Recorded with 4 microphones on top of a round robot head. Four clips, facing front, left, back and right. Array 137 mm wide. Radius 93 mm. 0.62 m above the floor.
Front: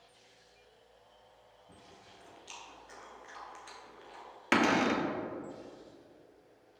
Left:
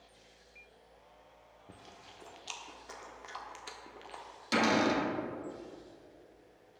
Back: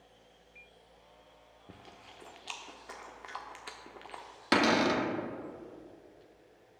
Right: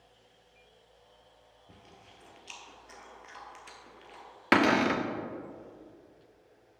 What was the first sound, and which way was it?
Chewing, 160° left.